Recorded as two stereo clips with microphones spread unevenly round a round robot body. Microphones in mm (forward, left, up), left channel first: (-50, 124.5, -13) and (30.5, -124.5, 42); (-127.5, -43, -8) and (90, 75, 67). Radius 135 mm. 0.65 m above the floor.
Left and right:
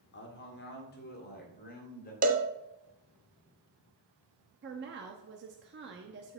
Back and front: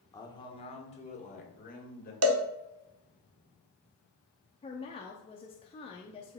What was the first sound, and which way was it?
A man speaking, 140° left.